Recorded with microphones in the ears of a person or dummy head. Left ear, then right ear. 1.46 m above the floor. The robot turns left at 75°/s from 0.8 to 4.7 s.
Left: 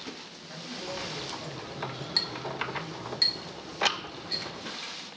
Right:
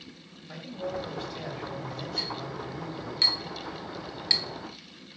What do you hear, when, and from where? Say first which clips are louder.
0.5 s a man speaking: right 3 dB; 5° right, 2.5 m; by 3.2 s straight behind, 2.5 m
2.2 s a clink: left 4 dB; 55° left (ahead or behind), 0.8 m; by 5.2 s 50° right (ahead or behind), 0.8 m